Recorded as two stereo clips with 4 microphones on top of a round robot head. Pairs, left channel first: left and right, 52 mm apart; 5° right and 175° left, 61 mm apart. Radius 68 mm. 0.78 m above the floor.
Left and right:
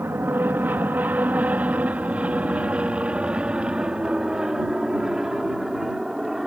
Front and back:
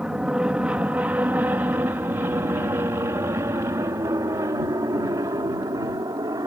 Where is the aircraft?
110° right; by 6.5 s 175° right.